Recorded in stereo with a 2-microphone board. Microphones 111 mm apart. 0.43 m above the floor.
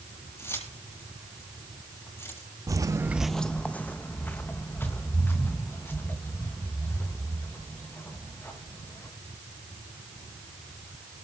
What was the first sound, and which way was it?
Keys jangling, 25° left (ahead or behind).